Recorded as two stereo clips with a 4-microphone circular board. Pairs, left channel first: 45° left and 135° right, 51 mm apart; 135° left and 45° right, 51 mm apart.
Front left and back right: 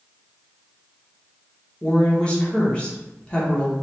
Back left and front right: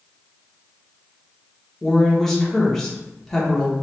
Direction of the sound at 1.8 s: 60° left.